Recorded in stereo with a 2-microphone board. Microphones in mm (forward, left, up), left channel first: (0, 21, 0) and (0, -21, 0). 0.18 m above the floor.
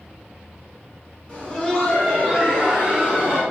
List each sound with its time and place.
1.3 s laughter: 15° left (ahead or behind), 1.7 m; by 3.4 s 30° right (ahead or behind), 1.9 m